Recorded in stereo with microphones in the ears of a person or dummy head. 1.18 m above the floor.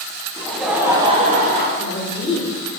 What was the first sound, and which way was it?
Laughter, 20° left (ahead or behind).